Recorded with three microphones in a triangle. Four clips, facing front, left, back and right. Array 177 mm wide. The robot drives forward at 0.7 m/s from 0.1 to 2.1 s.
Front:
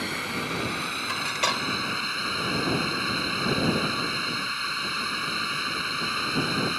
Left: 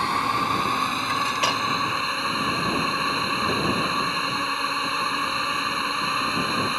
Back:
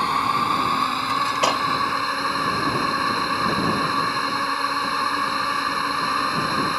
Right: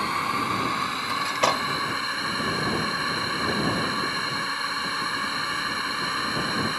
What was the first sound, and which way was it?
A drone, 150° left.